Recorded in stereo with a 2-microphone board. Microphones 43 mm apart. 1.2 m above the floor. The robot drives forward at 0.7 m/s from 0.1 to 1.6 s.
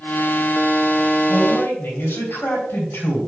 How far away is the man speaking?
About 3.5 m.